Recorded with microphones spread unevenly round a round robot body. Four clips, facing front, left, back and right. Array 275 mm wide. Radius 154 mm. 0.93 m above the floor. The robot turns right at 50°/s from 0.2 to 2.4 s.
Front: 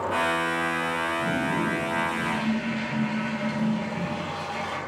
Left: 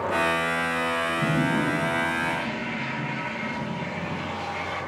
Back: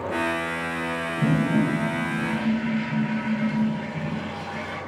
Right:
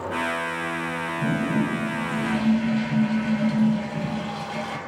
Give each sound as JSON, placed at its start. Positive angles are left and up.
{"t": 1.2, "sound": "a toilet flushing", "azimuth_deg": 180, "distance_m": 6.5}